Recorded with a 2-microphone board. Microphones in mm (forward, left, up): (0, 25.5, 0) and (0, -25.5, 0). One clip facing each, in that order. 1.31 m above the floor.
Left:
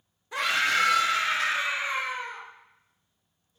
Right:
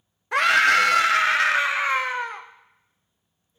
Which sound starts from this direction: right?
A scream, at 0.3 s.